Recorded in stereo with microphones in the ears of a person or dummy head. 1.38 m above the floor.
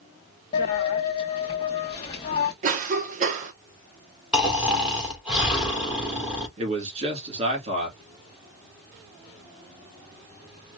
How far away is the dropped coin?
About 0.8 m.